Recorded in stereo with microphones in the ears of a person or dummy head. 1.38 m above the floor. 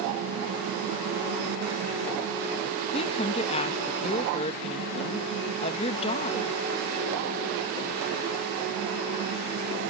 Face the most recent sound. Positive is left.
turn(degrees=30)  # may be behind; listen again after turning